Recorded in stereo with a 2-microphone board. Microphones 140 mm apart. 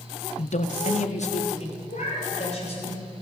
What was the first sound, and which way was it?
A man speaking, 50° left (ahead or behind).